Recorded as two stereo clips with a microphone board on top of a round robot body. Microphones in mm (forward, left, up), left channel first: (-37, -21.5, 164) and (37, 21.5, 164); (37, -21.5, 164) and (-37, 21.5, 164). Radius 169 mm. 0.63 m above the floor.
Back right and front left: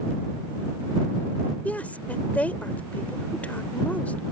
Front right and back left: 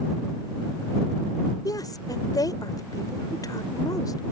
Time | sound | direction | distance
1.6 | a woman speaking | 75° right | ?